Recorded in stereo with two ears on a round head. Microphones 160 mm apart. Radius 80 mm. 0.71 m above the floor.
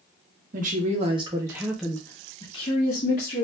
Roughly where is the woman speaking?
Right.